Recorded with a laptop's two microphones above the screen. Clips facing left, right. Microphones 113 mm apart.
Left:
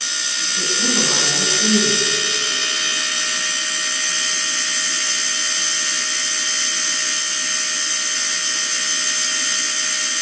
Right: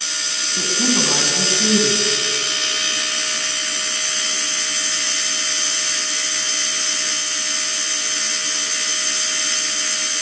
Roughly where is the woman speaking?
Right.